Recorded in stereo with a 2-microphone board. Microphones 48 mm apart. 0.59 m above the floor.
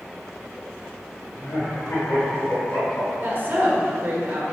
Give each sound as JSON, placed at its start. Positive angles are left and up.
{"t": 1.4, "sound": "laughter", "side_deg": 65, "distance_m": 3.0}
{"t": 3.2, "sound": "a woman speaking", "side_deg": -40, "distance_m": 1.5}